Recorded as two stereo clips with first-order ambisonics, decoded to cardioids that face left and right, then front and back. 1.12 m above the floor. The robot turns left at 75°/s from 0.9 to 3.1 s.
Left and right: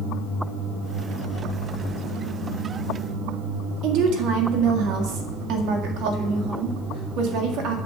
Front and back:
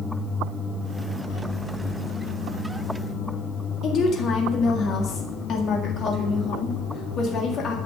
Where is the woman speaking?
55° right, 1.8 m.